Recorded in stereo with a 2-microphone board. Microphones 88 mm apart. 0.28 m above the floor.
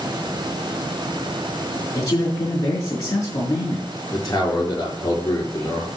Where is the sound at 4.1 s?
40° left (ahead or behind), 5 m.